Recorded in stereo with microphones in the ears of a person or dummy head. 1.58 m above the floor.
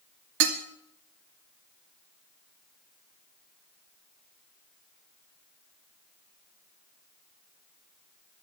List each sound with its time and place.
0.4 s dishes clattering: 75° right (ahead or behind), 2.5 m